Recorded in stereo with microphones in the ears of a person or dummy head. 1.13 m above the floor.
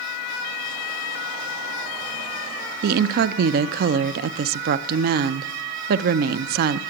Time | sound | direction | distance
2.8 | a woman speaking | 50° right (ahead or behind) | 0.5 m